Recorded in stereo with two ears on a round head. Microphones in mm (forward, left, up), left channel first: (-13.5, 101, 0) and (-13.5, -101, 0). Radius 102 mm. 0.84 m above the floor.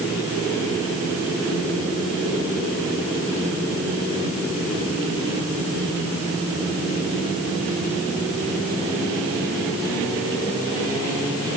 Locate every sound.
Only background noise.